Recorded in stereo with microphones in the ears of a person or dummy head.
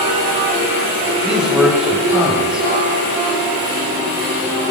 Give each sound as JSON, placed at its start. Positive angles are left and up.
{"t": 1.2, "sound": "a man speaking", "side_deg": -5, "distance_m": 6.5}